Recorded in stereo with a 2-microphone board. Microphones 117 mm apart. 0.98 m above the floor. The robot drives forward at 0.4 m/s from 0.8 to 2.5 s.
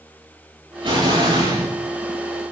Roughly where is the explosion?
Right.